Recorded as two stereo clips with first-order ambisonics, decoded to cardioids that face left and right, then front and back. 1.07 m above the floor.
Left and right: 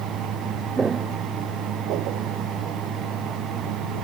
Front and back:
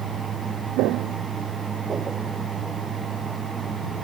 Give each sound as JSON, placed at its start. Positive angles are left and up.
{"t": 0.8, "sound": "footsteps", "azimuth_deg": -165}